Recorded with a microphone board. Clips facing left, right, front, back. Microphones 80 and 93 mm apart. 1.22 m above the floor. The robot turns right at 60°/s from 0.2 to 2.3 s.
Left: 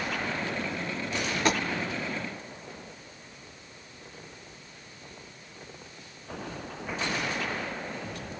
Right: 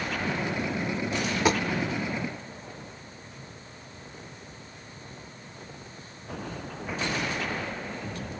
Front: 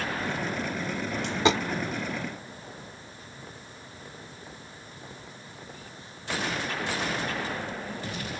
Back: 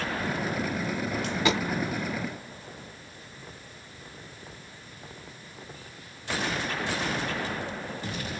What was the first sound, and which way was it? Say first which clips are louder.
A dropped coin: right 2 dB, front 3 dB; 40° right.